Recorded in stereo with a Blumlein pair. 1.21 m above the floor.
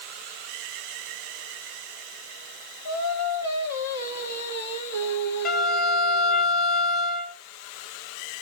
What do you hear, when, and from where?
2.9 s singing: 70° left, 1.5 m
5.5 s a violin: 25° left, 0.8 m